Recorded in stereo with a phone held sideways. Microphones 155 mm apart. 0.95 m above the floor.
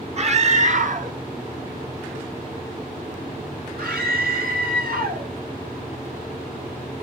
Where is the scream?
45° right (ahead or behind), 1.3 m; by 5.3 s 80° right, 3.5 m.